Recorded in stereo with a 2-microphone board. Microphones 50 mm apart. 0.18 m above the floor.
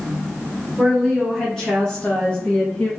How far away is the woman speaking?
About 1.9 m.